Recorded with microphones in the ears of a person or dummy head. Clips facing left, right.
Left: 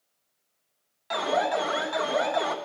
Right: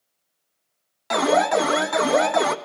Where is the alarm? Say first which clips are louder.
Right 7 dB; 60° right (ahead or behind), 1.0 m.